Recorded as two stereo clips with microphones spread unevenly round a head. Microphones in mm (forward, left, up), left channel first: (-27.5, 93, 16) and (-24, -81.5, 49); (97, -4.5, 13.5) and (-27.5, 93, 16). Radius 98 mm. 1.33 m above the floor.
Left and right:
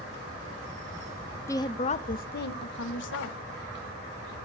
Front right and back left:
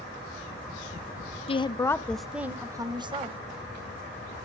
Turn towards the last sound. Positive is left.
turn(degrees=85)